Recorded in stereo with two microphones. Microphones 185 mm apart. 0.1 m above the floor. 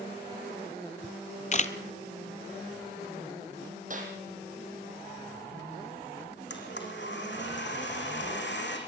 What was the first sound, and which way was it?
A camera shutter, 40° left (ahead or behind).